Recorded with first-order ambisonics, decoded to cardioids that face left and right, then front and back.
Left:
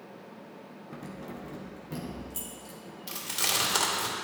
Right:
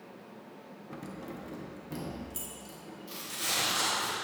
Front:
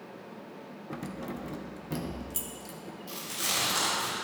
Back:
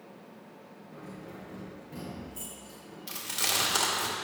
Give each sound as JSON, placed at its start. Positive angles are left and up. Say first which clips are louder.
{"t": 0.9, "sound": "keys jangling", "louder": "even, front 7 dB", "azimuth_deg": -5, "distance_m": 0.7}
{"t": 3.1, "sound": "chewing", "louder": "left 4 dB, back 2 dB", "azimuth_deg": 130, "distance_m": 2.5}